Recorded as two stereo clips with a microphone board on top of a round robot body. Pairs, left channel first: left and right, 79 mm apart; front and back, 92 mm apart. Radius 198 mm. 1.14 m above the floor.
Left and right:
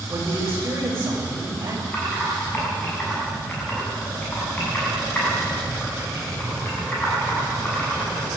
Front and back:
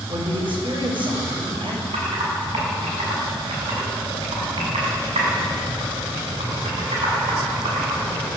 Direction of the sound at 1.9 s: 160° left.